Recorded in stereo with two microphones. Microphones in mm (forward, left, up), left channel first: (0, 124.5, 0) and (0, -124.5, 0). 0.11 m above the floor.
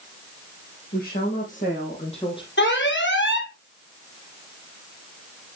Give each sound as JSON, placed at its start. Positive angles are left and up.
{"t": 0.9, "sound": "a woman speaking", "side_deg": 40, "distance_m": 5.0}
{"t": 2.6, "sound": "an alarm", "side_deg": 50, "distance_m": 4.0}